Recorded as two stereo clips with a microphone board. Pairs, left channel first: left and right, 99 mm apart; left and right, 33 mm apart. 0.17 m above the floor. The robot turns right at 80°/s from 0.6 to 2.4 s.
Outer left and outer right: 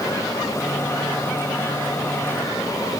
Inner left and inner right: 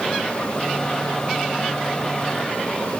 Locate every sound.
Only background noise.